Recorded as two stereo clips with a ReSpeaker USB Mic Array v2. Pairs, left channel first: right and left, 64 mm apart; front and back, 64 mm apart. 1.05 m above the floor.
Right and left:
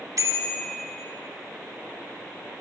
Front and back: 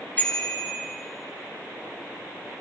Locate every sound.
0.2 s a bicycle bell: 65° left, 2 m